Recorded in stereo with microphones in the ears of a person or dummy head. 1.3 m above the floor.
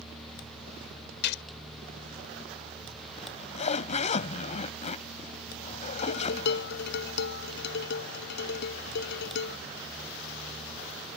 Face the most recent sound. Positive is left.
turn(degrees=60)  # may be behind; listen again after turning